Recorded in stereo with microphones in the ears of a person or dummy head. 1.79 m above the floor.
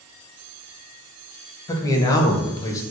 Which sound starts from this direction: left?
A man speaking, at 1.7 s.